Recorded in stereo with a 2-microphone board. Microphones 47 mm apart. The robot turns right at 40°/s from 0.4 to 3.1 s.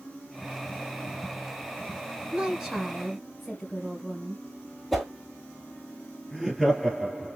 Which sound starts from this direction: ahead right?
A woman speaking, at 2.3 s.